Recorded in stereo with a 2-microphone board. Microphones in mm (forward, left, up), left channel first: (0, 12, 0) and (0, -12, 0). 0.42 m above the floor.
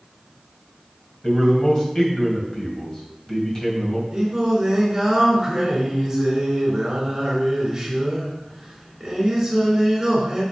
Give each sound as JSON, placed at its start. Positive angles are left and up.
{"t": 1.2, "sound": "a man speaking", "side_deg": 25, "distance_m": 2.5}
{"t": 4.1, "sound": "singing", "side_deg": -20, "distance_m": 3.5}